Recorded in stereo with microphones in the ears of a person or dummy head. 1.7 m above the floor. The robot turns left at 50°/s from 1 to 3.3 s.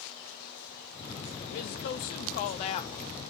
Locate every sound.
1.5 s a woman speaking: 110° left, 0.6 m; by 3.0 s 35° left, 0.6 m